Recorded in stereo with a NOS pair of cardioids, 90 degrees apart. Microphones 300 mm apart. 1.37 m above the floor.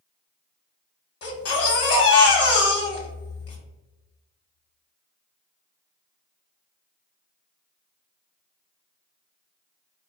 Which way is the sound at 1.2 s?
55° left.